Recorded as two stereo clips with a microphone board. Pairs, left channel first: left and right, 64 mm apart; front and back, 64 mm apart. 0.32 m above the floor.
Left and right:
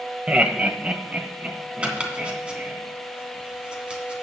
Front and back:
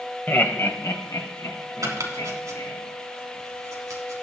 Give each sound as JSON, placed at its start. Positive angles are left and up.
{"t": 0.3, "sound": "laughter", "azimuth_deg": -30, "distance_m": 1.1}
{"t": 1.8, "sound": "chopping", "azimuth_deg": -160, "distance_m": 2.5}